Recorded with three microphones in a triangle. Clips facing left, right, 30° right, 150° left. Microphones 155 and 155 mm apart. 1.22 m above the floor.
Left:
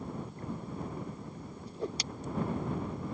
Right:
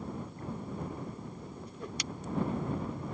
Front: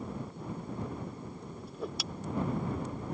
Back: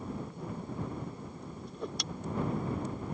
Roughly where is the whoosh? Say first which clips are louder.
Left 8 dB, front 1 dB; ahead left.